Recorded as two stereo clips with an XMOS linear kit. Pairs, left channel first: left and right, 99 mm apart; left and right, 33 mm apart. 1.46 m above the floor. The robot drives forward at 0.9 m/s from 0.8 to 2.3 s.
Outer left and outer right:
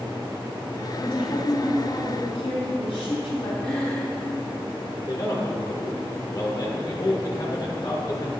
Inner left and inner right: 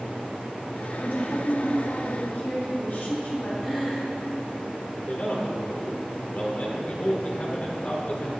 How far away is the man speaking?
About 1.6 m.